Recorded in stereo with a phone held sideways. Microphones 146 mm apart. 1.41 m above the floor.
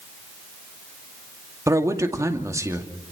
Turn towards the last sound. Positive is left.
turn(degrees=-20)  # may be behind; listen again after turning